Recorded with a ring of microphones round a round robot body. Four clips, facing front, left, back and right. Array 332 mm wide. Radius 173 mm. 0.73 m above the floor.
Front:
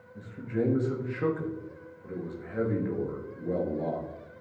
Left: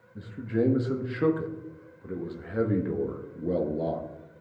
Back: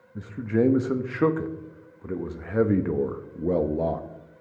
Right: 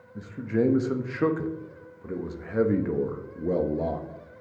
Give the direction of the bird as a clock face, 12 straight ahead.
No bird in this recording.